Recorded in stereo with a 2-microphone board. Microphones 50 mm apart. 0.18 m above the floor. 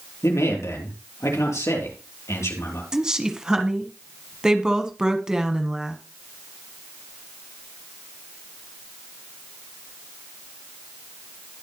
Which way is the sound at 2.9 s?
15° right (ahead or behind).